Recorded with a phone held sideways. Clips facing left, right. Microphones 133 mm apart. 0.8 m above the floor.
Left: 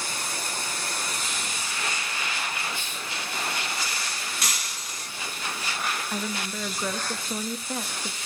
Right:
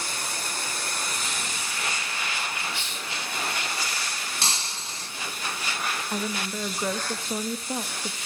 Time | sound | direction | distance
2.7 | a hiss | 85° right | 3 m
4.4 | breaking glass | 30° right (ahead or behind) | 3 m
6.1 | a woman speaking | 10° right (ahead or behind) | 0.9 m